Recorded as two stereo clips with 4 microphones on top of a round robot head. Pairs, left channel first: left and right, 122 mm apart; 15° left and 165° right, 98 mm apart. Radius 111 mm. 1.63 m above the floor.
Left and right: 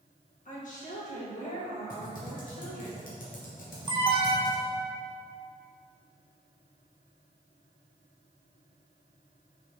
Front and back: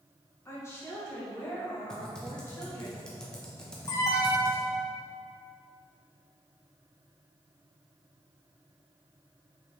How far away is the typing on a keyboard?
About 1.2 m.